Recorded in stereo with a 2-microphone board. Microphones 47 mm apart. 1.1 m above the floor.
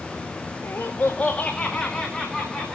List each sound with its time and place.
0.6 s laughter: 60° left (ahead or behind), 1.6 m; by 2.8 s centre (ahead or behind), 3.5 m